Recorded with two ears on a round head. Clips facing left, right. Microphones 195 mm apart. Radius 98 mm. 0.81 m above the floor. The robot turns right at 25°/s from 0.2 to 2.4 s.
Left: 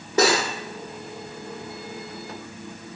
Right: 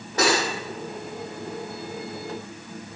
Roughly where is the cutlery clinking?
Left.